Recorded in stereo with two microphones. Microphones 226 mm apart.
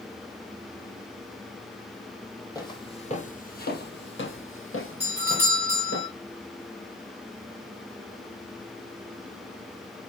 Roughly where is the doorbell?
Left.